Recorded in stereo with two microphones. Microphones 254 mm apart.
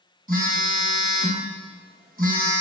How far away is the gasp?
I don't hear a gasp.